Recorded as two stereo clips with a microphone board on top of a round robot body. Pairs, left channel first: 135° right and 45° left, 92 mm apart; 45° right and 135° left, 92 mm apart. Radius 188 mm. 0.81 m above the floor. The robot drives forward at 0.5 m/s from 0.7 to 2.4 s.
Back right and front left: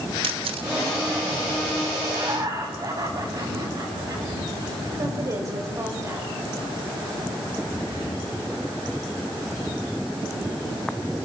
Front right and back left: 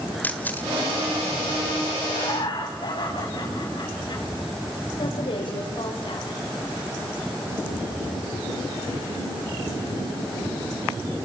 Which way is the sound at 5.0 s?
10° right.